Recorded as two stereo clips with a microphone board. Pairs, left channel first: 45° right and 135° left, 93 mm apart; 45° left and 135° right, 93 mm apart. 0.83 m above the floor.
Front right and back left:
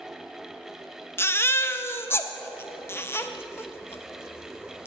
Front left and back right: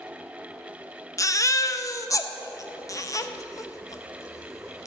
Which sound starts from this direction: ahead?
A baby crying, at 1.2 s.